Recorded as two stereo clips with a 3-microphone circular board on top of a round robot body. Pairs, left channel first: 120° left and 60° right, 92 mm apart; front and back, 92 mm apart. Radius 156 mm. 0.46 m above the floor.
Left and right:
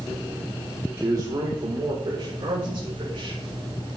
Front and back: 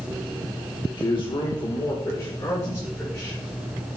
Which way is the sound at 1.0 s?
10° right.